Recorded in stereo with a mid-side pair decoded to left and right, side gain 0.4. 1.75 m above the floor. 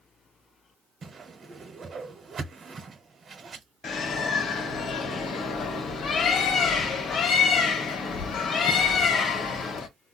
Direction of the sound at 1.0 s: 50° right.